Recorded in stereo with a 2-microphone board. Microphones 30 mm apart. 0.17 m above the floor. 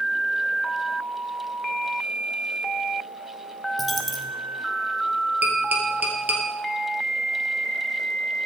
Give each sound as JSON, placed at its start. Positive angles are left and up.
{"t": 3.8, "sound": "a dropped coin", "side_deg": 0, "distance_m": 1.0}
{"t": 5.4, "sound": "tapping", "side_deg": -70, "distance_m": 2.5}